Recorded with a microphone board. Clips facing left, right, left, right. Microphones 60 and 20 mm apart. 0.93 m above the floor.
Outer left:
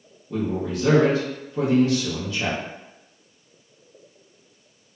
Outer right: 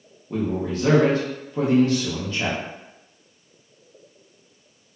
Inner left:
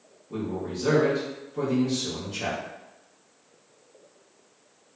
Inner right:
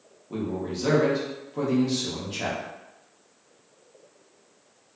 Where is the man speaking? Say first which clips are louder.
Outer right 1 dB, inner right 1 dB; 40° right (ahead or behind), 1.1 m.